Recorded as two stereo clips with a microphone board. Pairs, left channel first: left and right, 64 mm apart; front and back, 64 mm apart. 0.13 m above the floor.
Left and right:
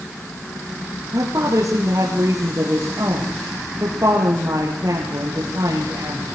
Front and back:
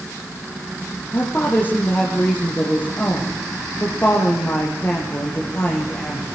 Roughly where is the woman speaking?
Ahead right.